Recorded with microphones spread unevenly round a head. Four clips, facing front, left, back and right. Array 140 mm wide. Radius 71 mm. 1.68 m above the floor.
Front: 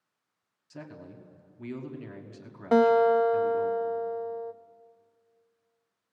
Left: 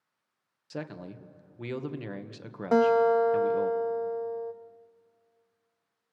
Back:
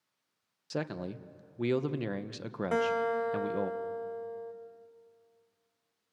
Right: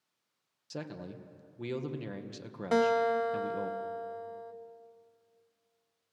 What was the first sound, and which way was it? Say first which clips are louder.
A man speaking: left 3 dB, back 8 dB; 175° left.